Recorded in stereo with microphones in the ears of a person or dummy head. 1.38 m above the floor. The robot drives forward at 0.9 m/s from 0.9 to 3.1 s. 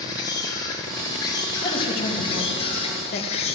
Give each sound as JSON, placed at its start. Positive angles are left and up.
{"t": 0.0, "sound": "an insect", "side_deg": 20, "distance_m": 4.5}
{"t": 1.6, "sound": "a man speaking", "side_deg": 30, "distance_m": 3.0}